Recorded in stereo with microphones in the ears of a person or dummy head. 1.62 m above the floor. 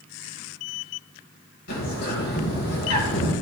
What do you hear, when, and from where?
1.7 s a bird: 55° left (ahead or behind), 2.5 m